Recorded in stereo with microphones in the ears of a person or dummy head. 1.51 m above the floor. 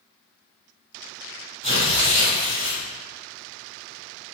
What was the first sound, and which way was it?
Tearing paper, 40° right (ahead or behind).